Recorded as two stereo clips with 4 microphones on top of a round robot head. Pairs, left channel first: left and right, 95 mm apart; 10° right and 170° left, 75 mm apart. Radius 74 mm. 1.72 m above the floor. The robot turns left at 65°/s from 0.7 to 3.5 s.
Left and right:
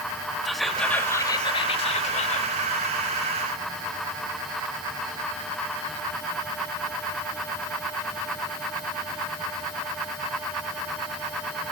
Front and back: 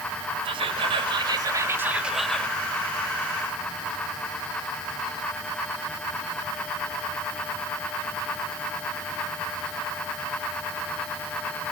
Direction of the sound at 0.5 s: Straight behind.